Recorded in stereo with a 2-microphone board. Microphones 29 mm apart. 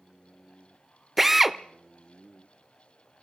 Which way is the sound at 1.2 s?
10° right (ahead or behind).